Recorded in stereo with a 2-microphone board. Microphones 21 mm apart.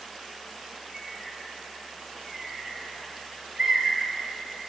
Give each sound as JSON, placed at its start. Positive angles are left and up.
{"t": 0.9, "sound": "a bird", "side_deg": -20, "distance_m": 1.3}